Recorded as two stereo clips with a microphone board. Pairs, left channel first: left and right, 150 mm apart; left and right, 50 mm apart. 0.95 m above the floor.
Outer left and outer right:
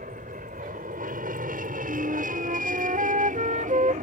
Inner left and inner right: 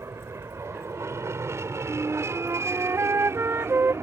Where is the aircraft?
65° right (ahead or behind); by 4.0 s 60° right (ahead or behind).